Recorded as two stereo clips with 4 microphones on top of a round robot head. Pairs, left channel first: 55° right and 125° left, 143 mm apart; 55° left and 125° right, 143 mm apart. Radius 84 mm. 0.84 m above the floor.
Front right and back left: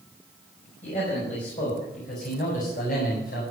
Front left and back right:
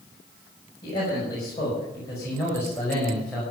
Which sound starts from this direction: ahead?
A man speaking, at 0.8 s.